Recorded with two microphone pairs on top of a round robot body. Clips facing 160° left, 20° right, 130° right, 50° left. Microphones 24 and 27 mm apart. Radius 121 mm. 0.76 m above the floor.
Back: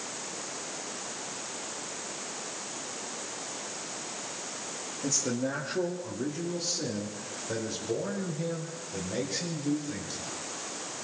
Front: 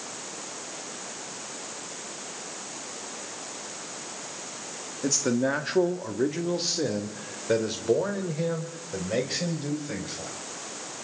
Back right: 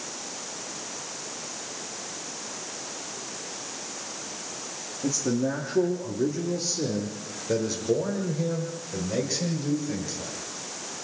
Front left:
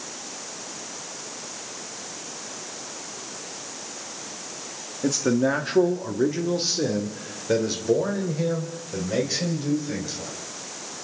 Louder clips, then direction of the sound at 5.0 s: Front 6 dB, front left 5 dB; 45° left.